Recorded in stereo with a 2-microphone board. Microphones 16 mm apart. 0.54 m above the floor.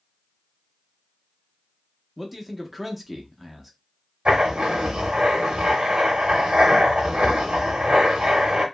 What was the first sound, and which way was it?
A man speaking, centre (ahead or behind).